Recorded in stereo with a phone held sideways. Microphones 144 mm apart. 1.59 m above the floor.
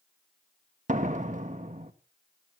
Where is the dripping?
I don't hear dripping.